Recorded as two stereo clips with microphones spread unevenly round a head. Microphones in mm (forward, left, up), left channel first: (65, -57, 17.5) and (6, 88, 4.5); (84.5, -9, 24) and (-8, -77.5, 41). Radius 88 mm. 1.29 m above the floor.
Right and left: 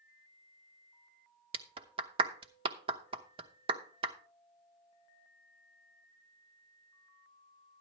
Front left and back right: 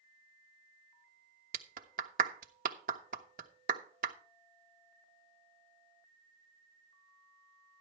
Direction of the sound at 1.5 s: 175° left.